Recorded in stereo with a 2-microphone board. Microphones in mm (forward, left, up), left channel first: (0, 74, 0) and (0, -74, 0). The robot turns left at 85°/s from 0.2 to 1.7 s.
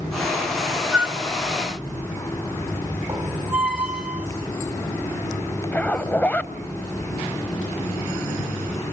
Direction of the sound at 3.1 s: 10° right (ahead or behind).